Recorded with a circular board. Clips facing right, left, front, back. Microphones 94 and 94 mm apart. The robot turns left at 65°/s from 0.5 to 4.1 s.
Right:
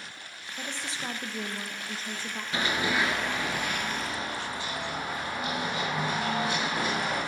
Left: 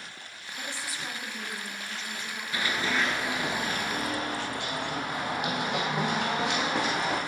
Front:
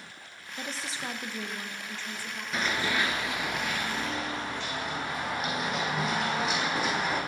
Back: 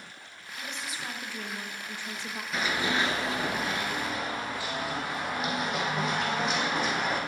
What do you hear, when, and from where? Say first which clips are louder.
0.6 s a woman speaking: right 1 dB, front 2 dB; 20° right, 0.7 m; by 2.4 s 140° right, 0.7 m
2.5 s running footsteps: right 1 dB, back 1 dB; 85° right, 0.9 m; by 7.2 s 90° left, 3.5 m